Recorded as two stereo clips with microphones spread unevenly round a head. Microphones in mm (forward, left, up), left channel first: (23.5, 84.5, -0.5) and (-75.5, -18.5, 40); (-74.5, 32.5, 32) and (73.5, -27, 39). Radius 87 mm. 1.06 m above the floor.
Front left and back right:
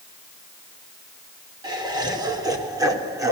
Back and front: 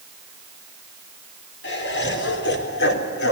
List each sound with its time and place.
1.6 s laughter: 160° left, 4.5 m; by 3.3 s 155° left, 3.5 m